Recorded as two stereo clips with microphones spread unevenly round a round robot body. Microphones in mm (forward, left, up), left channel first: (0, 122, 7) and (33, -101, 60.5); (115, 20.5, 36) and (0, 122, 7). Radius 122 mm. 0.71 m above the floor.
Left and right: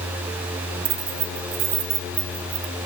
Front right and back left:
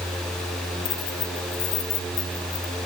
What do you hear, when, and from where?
0.8 s keys jangling: 90° right